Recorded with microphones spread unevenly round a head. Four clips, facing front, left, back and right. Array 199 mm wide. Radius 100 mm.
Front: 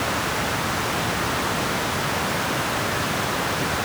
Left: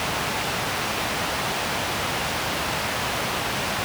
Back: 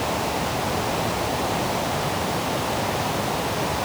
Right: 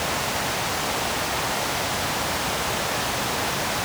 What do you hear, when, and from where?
Only background noise.